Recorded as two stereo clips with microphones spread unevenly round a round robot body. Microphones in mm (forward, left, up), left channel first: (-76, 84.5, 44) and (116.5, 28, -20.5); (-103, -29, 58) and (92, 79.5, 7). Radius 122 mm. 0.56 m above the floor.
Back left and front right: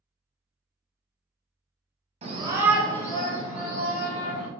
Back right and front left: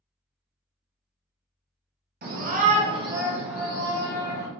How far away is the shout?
About 1.1 m.